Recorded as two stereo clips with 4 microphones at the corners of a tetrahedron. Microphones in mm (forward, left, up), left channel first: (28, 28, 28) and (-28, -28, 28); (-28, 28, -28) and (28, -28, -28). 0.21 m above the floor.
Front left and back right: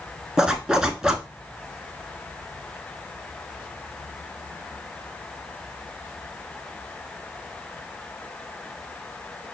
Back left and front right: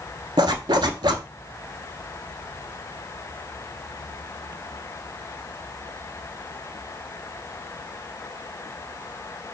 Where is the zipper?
55° right, 0.5 m.